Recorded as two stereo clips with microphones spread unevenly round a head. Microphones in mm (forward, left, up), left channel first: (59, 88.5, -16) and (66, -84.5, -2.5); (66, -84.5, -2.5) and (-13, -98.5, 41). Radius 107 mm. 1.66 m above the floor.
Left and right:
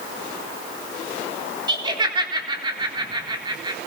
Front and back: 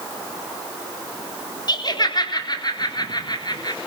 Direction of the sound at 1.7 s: 25° right.